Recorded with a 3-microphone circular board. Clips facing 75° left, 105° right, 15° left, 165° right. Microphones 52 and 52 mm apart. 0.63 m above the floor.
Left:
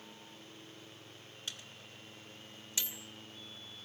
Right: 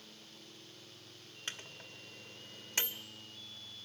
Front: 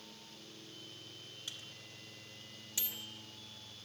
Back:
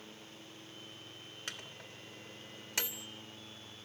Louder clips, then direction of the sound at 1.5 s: Right 3 dB, back 6 dB; 150° right.